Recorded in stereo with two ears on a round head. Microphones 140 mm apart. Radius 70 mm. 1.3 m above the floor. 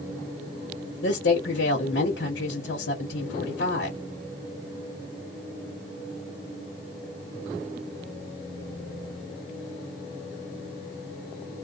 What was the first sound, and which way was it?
A woman speaking, 80° left.